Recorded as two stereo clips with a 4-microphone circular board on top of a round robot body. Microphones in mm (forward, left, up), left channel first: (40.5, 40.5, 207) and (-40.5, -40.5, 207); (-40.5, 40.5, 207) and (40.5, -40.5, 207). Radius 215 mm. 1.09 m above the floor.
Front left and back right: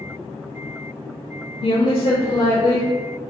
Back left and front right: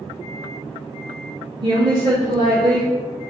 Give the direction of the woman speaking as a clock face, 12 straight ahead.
12 o'clock.